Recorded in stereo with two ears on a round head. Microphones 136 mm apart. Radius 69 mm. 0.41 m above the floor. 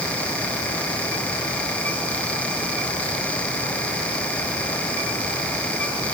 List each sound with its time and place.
Only background noise.